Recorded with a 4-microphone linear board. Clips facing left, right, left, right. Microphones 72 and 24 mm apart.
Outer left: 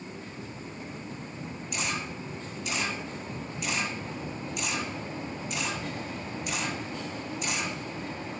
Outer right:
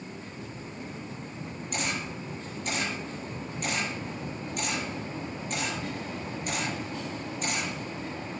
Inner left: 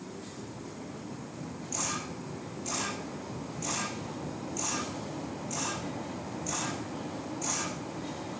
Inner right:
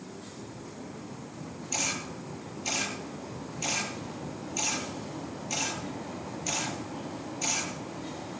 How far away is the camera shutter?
About 7.5 m.